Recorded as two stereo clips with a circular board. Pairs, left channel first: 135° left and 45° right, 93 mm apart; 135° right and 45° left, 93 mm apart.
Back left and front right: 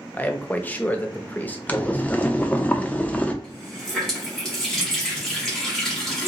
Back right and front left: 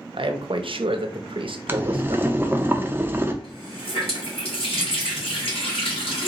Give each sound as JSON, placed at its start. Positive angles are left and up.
{"t": 0.1, "sound": "a man speaking", "azimuth_deg": 65, "distance_m": 0.7}
{"t": 1.7, "sound": "boiling", "azimuth_deg": 85, "distance_m": 0.6}
{"t": 3.4, "sound": "a running tap", "azimuth_deg": -140, "distance_m": 2.0}